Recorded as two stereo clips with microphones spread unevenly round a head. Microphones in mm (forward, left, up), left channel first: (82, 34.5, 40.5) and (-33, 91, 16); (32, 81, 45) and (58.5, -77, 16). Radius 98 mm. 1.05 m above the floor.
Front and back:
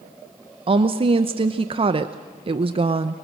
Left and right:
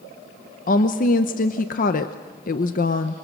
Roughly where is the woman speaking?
Behind left.